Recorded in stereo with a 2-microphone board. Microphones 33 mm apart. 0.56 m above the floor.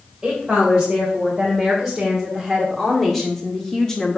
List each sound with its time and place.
0.2 s a woman speaking: 10° right (ahead or behind), 3 m; by 4.2 s 20° left (ahead or behind), 1.2 m